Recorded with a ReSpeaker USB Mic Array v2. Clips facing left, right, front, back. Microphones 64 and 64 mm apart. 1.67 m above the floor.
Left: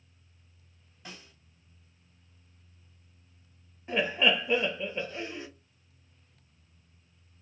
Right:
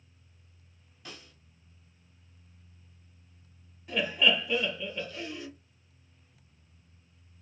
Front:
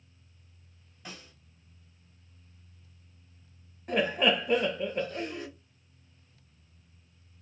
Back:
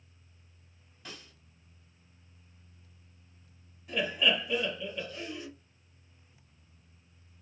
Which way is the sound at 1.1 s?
55° left.